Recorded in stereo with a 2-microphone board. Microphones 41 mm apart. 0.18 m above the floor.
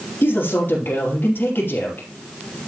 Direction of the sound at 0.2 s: 60° left (ahead or behind).